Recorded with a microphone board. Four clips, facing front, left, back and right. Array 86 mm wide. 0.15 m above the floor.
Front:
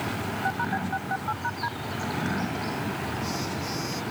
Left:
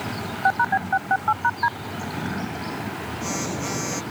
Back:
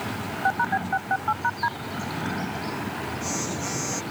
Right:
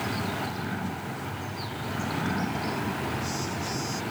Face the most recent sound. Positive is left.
turn(degrees=110)